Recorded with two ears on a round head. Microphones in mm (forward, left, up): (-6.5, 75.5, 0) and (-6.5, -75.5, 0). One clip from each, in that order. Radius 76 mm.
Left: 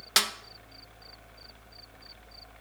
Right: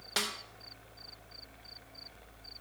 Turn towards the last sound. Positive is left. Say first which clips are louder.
# left 8 dB
turn(degrees=50)  # may be behind; listen again after turning